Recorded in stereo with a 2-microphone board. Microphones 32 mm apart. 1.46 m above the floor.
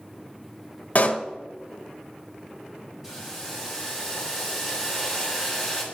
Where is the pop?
50° left (ahead or behind), 0.8 m.